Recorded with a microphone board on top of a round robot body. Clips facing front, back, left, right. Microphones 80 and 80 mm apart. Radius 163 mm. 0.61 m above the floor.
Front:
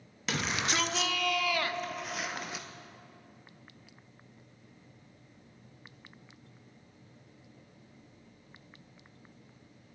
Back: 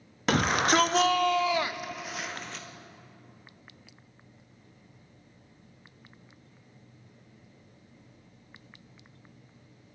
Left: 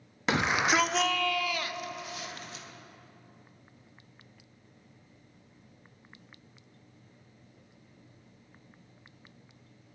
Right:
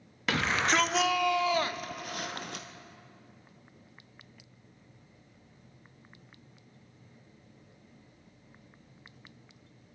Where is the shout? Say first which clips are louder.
Back 9 dB, left 1 dB; 155° left, 1.0 m; by 2.7 s 80° right, 1.0 m.